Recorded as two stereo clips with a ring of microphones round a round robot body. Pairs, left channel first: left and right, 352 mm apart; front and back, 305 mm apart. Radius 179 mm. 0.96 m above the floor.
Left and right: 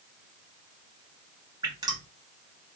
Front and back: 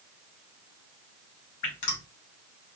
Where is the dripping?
10° right, 1.8 m.